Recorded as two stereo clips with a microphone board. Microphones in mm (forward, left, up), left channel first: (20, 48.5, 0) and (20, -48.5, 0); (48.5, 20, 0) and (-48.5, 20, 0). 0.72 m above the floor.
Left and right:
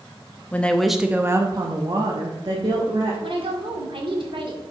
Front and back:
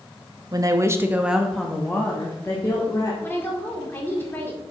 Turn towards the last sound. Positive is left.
turn(degrees=-65)